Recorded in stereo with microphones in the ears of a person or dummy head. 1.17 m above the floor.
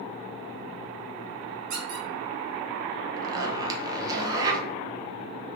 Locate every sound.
1.7 s a squeak: 50° right (ahead or behind), 2.0 m
3.2 s a zipper: 25° right (ahead or behind), 0.7 m